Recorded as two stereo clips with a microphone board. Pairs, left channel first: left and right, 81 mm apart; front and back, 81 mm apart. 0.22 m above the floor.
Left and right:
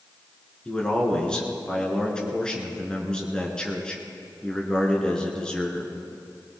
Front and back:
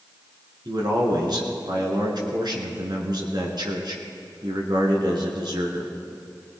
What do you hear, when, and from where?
0.7 s a man speaking: 170° left, 3 m